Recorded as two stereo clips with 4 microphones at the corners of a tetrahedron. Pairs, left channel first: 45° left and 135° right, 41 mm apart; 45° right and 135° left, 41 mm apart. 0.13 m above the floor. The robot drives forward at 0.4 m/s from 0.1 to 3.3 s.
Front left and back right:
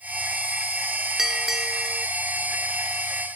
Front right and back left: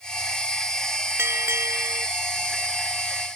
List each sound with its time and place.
1.2 s a bell: 140° left